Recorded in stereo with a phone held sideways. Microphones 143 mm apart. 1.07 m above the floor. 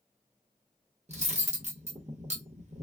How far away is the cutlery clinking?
About 0.8 m.